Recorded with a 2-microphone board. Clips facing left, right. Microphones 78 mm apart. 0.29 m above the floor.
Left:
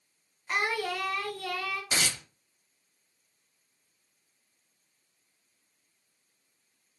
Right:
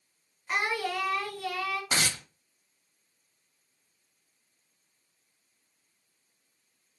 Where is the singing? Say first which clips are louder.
Even; 5° right (ahead or behind), 1.4 m.